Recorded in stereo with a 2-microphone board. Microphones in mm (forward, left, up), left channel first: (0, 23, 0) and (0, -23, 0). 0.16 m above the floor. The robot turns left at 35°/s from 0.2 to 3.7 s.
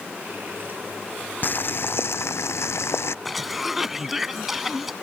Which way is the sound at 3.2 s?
Centre (ahead or behind).